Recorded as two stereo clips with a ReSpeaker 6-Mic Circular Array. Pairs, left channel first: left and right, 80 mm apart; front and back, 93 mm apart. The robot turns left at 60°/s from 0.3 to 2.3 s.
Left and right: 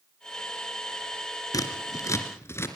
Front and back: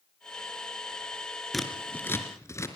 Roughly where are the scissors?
Left.